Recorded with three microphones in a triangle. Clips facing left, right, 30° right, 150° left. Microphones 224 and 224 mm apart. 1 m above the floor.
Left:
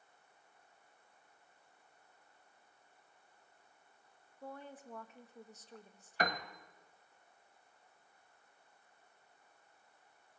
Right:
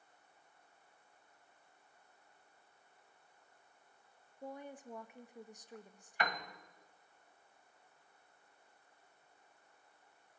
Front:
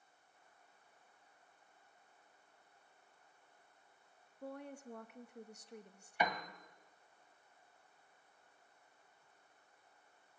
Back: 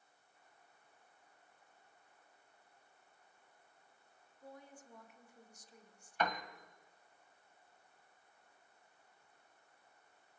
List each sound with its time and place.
4.4 s a woman speaking: 15° right, 1.2 m
6.2 s a piano: 45° left, 1.3 m